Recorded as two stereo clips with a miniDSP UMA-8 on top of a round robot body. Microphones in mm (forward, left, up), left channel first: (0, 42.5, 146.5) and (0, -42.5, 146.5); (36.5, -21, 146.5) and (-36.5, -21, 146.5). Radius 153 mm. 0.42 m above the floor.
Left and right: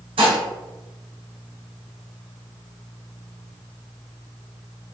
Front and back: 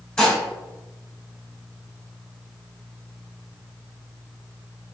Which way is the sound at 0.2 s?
80° right.